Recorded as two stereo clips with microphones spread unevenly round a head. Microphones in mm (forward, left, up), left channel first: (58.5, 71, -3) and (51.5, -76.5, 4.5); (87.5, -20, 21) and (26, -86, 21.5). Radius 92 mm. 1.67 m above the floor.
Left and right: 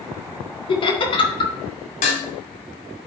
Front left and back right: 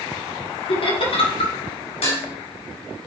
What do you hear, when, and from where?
0.7 s laughter: 30° left, 2.0 m
2.0 s dishes clattering: 55° left, 3.5 m